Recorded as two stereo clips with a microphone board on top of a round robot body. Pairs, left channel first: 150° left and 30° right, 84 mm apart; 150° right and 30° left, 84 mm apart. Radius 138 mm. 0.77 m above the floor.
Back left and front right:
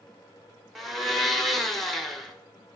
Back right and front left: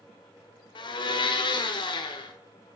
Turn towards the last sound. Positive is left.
turn(degrees=-120)